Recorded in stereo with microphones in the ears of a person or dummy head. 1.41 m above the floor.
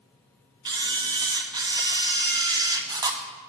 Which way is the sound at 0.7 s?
20° right (ahead or behind).